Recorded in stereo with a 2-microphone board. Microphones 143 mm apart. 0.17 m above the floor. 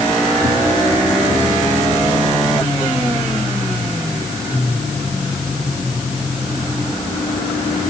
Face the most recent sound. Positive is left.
No sound to turn to.